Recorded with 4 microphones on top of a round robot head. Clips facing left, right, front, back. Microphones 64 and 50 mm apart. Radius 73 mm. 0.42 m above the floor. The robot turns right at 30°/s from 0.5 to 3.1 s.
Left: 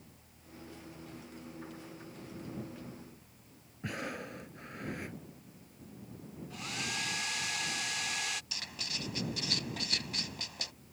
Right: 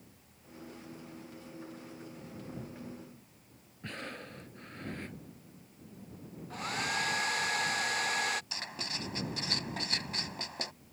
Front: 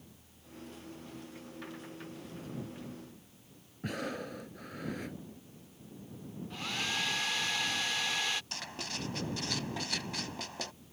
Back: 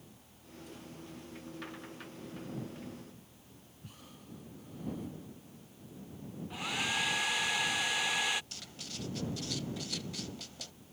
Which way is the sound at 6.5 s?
105° right.